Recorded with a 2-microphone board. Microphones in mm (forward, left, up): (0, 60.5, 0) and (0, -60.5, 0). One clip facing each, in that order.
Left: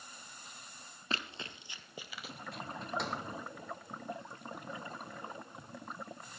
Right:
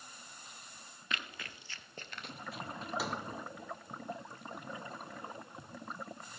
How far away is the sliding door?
About 1.3 m.